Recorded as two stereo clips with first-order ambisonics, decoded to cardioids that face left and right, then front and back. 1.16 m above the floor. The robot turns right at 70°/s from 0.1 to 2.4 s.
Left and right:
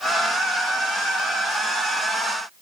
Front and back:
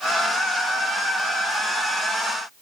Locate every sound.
Only background noise.